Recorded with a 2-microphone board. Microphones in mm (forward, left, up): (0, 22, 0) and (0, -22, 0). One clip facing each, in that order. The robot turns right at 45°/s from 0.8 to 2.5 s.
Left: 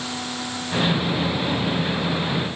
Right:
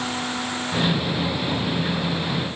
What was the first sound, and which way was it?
Only background noise.